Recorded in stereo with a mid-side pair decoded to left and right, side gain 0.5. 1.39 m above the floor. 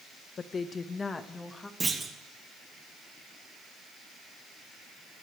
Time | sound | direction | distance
0.4 | a woman speaking | 45° left | 1.2 m
1.8 | a clunk | 20° right | 2.5 m